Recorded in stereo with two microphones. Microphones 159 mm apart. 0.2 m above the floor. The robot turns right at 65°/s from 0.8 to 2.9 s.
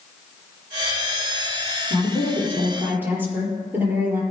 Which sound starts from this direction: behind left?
A woman speaking, at 1.9 s.